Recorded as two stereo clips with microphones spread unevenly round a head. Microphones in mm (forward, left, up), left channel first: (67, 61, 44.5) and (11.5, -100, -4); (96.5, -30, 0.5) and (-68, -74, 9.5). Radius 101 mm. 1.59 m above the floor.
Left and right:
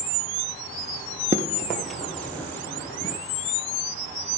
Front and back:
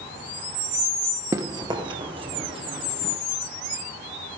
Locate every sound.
1.3 s running footsteps: 160° left, 1.6 m; by 3.2 s 135° left, 3.5 m